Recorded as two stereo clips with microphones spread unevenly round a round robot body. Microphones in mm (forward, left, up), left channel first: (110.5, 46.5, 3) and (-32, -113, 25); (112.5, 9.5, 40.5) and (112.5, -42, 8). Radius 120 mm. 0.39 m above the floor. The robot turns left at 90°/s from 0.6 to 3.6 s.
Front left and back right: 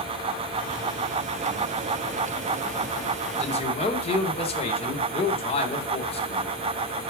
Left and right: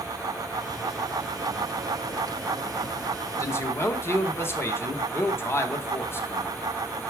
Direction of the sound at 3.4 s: 45° left.